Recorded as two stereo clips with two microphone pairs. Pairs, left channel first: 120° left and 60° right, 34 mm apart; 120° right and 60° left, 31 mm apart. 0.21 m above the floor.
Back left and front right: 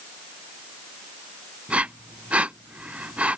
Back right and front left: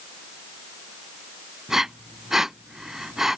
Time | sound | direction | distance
1.7 | breathing | 20° right | ?